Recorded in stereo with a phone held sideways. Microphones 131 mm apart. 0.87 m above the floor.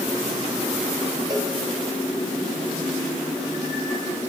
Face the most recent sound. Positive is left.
turn(degrees=-30)  # may be behind; listen again after turning